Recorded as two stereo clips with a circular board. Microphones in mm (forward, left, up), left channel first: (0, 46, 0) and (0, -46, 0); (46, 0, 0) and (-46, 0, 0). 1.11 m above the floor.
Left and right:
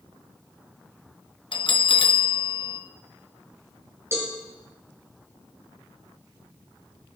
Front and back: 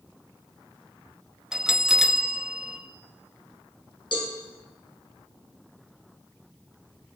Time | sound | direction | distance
1.5 | a bell | 95° left | 0.7 m
4.1 | a cowbell | 30° right | 3 m